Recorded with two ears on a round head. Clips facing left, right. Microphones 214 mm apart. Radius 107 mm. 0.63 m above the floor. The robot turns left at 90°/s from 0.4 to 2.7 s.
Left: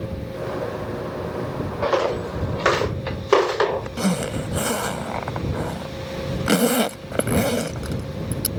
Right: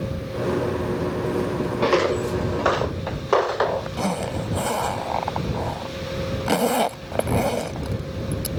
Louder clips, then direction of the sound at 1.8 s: Right 1 dB; 50° right (ahead or behind).